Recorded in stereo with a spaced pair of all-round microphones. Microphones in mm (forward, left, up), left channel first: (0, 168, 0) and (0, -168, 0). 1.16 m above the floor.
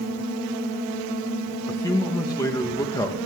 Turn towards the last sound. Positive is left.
turn(degrees=10)  # may be behind; listen again after turning